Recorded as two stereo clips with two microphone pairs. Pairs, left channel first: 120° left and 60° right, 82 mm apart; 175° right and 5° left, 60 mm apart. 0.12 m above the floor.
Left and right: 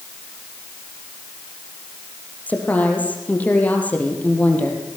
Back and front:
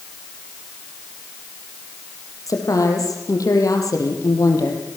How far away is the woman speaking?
About 4 m.